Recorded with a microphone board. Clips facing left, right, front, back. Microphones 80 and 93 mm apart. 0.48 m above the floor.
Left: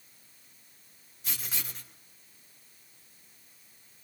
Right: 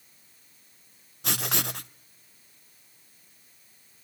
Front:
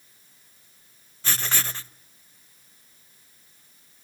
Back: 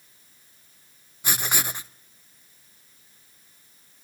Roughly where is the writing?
Right.